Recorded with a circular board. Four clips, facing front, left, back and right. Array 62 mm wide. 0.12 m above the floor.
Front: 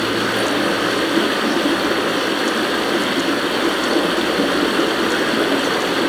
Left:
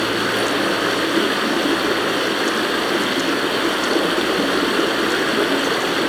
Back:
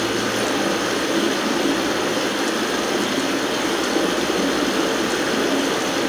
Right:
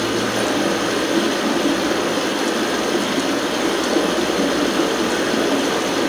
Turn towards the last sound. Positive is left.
turn(degrees=50)